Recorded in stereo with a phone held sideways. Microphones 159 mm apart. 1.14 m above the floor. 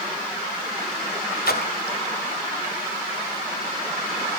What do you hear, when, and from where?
1.5 s a splash: 80° left, 2.5 m